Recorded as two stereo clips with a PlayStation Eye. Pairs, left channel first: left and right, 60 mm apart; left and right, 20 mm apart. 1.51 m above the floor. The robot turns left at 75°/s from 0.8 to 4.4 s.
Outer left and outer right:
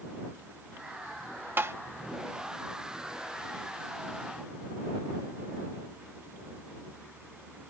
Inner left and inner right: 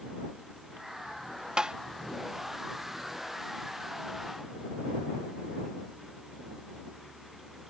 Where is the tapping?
40° right (ahead or behind); by 1.8 s 55° right (ahead or behind).